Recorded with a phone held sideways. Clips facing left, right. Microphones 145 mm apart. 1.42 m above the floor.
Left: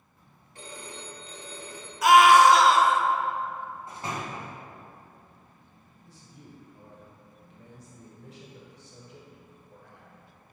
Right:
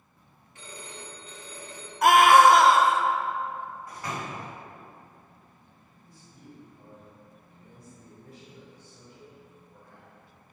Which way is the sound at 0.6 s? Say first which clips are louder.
Left 2 dB; 35° left (ahead or behind).